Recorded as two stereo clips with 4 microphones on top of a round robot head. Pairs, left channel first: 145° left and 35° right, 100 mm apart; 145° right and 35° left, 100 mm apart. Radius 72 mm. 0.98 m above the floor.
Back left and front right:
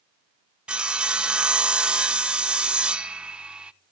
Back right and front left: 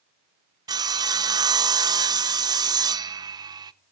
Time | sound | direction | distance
0.7 | sawing | 45° left | 0.9 m